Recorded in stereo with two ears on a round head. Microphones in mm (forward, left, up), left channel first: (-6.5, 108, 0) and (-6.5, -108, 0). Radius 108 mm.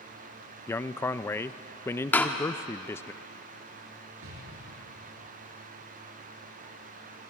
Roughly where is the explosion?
Right.